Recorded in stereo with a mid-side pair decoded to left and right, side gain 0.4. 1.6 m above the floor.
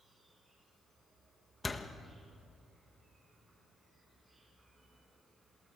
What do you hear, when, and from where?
0.0 s an insect: 25° right, 6.5 m
1.6 s a door slam: 30° left, 1.6 m